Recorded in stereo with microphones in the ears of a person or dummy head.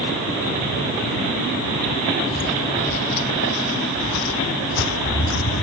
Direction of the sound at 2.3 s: 30° left (ahead or behind).